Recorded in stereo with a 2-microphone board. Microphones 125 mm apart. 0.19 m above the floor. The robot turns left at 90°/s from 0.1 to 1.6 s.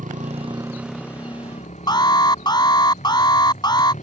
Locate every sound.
0.0 s a motorcycle: 75° right (ahead or behind); by 4.0 s 70° left (ahead or behind)
1.9 s an alarm: 35° left (ahead or behind)